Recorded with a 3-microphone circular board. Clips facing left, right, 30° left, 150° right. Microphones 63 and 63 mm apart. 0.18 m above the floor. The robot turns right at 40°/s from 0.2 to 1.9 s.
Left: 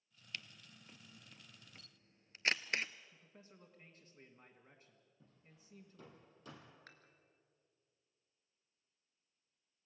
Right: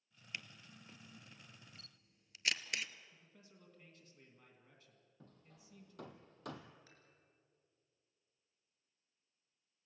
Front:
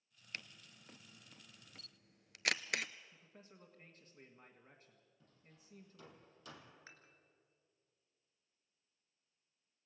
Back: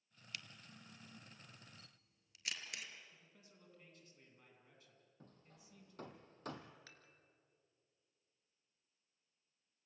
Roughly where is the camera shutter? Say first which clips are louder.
Right 1 dB, front 2 dB; ahead.